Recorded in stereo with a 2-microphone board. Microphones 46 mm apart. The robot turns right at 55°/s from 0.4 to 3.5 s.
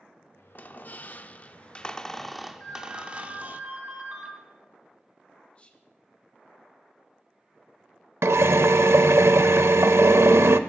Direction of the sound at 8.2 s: 90° right.